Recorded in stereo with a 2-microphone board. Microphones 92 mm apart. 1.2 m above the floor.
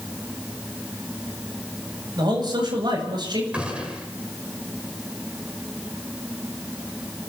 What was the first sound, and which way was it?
A man speaking, 55° right (ahead or behind).